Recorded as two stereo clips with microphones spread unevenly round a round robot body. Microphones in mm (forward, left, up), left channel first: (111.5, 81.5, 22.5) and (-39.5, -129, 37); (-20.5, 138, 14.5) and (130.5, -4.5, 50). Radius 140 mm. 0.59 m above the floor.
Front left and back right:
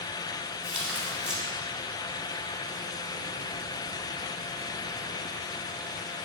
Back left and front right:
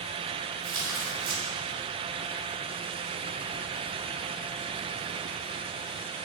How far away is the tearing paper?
About 2.5 m.